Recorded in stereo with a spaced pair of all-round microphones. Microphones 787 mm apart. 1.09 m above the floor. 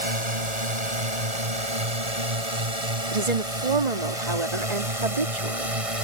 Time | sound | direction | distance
0.0 | a drone | 50° right (ahead or behind) | ?
3.1 | a woman speaking | 55° right (ahead or behind) | ?